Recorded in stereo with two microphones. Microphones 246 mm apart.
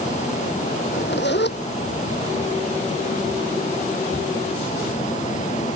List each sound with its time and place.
0.8 s a zipper: 50° left (ahead or behind)